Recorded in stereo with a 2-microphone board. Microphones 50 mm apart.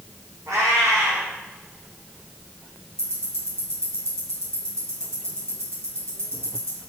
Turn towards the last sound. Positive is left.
turn(degrees=-70)  # may be behind; listen again after turning